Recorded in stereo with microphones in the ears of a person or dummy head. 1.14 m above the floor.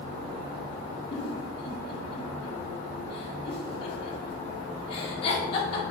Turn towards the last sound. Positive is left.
turn(degrees=40)  # may be behind; listen again after turning